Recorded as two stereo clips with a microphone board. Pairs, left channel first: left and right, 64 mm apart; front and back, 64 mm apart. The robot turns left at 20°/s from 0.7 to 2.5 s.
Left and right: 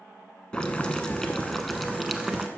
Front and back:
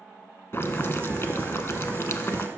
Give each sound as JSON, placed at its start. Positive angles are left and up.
{"t": 0.5, "sound": "boiling", "azimuth_deg": 20, "distance_m": 0.6}